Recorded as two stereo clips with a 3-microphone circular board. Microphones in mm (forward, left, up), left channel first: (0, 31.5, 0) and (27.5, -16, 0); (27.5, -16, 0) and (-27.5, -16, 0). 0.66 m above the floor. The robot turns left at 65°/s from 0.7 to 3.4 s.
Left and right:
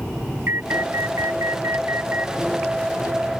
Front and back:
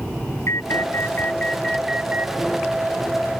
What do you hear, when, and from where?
0.5 s an alarm: 20° right; by 2.4 s 125° right